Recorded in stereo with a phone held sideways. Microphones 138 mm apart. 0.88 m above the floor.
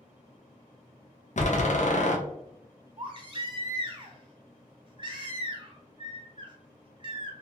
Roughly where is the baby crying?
Right.